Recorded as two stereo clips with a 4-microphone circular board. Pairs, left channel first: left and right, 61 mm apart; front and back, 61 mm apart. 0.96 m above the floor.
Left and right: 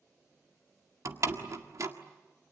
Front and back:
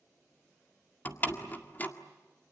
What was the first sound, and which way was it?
A door slam, 60° right.